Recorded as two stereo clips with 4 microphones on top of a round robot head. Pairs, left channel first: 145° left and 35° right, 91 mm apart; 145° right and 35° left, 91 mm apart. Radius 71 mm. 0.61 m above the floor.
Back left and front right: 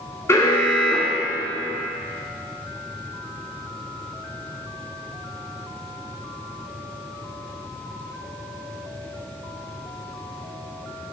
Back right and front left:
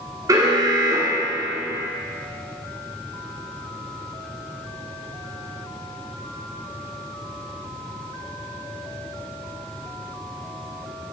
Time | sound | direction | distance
0.3 | an alarm | 85° left | 1.9 m